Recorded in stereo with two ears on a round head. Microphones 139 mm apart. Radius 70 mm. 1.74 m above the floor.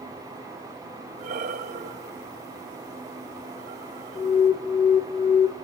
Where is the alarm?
20° left (ahead or behind), 1.6 m.